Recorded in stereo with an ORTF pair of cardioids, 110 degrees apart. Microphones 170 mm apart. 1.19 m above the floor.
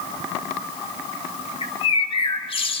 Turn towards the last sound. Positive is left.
turn(degrees=35)